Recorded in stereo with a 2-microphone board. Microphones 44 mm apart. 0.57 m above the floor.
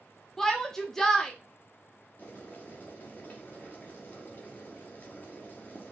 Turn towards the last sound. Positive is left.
turn(degrees=45)  # may be behind; listen again after turning